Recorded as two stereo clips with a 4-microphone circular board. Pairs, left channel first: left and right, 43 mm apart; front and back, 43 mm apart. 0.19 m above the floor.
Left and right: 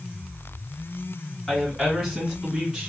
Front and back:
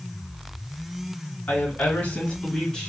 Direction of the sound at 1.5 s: 20° left.